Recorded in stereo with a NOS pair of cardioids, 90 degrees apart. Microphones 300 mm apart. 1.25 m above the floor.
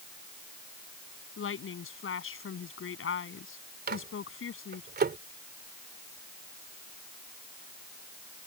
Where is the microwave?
35° right.